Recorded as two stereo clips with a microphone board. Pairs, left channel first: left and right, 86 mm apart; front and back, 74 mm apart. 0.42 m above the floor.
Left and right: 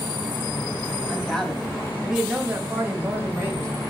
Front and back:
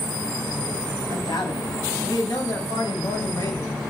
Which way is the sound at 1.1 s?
10° left.